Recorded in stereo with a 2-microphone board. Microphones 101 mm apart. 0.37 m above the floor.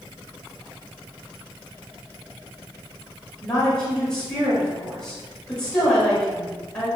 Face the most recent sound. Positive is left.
turn(degrees=10)  # may be behind; listen again after turning